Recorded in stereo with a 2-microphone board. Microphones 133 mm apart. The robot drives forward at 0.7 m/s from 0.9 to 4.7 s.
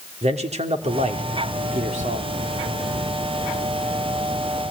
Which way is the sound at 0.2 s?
55° right (ahead or behind).